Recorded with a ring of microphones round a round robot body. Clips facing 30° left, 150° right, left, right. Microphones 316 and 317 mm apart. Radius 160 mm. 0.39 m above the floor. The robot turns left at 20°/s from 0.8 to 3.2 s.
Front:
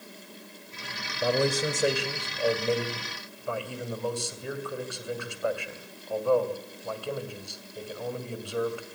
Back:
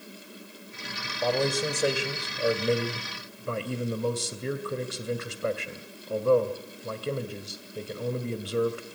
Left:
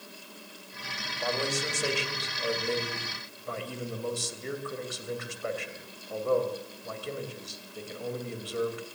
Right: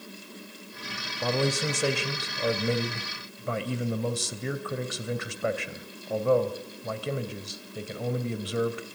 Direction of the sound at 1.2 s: 45° right.